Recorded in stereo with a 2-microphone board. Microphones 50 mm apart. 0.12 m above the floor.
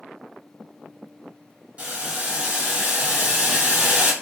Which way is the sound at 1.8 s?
25° right (ahead or behind).